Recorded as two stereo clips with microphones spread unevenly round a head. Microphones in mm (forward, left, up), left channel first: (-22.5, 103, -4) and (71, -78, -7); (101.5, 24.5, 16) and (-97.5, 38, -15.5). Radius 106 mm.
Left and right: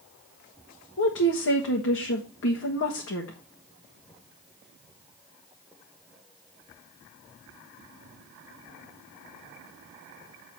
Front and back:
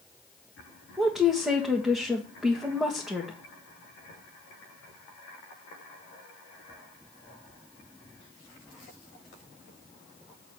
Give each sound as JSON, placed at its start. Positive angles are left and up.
{"t": 1.0, "sound": "a woman speaking", "azimuth_deg": 95, "distance_m": 1.5}